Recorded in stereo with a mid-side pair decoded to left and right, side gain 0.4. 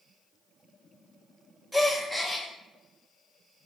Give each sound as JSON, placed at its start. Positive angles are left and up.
{"t": 1.7, "sound": "a gasp", "azimuth_deg": -15, "distance_m": 2.5}